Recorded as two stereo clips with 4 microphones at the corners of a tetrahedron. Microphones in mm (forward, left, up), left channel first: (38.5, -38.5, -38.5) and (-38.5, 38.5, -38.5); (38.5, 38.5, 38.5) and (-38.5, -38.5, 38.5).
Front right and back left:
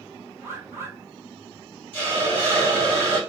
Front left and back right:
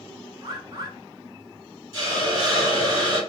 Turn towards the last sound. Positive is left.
turn(degrees=-110)